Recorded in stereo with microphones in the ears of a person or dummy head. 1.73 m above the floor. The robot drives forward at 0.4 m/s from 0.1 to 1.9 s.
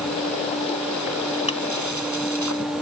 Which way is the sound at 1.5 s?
35° left (ahead or behind).